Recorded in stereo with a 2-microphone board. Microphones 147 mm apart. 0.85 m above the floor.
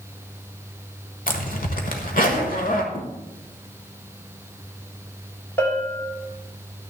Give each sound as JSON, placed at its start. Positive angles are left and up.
{"t": 1.3, "sound": "a zipper", "side_deg": 75, "distance_m": 1.4}
{"t": 2.9, "sound": "a thud", "side_deg": 80, "distance_m": 4.5}
{"t": 5.6, "sound": "a bell", "side_deg": 10, "distance_m": 2.5}